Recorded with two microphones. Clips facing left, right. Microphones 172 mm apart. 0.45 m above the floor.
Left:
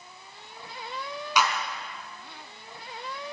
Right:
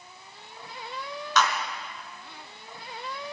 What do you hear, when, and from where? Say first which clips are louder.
1.4 s a clap: right 1 dB; 10° left (ahead or behind), 4.5 m